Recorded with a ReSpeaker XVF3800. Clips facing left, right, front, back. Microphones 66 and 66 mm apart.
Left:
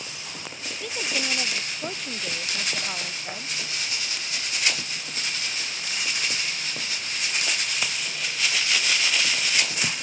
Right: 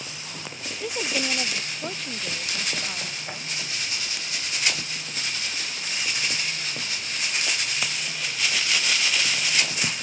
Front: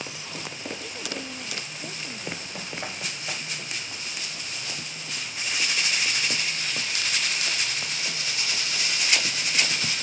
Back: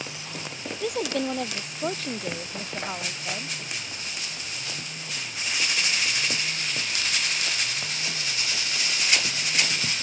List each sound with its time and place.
0.8 s a woman speaking: 160° right; by 3.6 s 155° left